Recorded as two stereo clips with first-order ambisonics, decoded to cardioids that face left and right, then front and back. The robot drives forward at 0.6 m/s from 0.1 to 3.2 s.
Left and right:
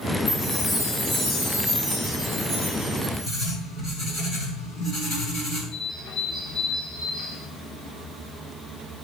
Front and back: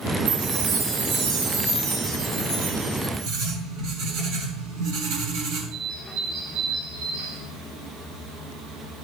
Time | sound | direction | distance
0.3 | a chime | 165° left | 4.5 m
3.3 | writing | 160° left | 5.5 m
5.7 | a bird | 165° left | 4.5 m